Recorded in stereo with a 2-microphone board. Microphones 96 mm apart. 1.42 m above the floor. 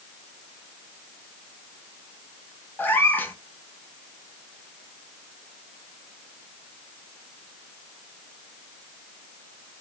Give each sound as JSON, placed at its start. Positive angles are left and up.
{"t": 2.8, "sound": "a cat meowing", "side_deg": 20, "distance_m": 0.8}